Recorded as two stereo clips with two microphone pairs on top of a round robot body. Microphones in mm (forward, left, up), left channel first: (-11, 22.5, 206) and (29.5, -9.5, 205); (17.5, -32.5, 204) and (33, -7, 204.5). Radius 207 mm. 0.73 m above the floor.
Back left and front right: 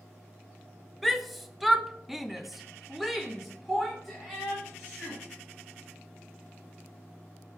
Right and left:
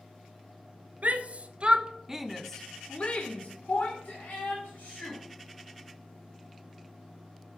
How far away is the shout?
About 1.2 m.